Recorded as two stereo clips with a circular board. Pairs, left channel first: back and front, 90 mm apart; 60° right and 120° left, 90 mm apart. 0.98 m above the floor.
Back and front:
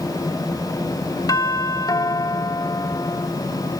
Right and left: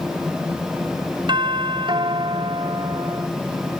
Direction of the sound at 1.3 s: 135° left.